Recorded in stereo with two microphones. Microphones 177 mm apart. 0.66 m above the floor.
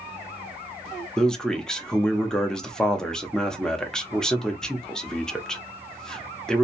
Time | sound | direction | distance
1.2 | a man speaking | 5° left (ahead or behind) | 0.7 m